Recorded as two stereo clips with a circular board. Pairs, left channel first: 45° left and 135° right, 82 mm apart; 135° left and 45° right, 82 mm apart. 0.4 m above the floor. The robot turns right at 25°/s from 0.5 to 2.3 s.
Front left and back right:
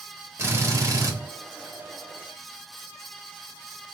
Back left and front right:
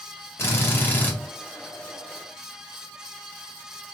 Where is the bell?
I don't hear a bell.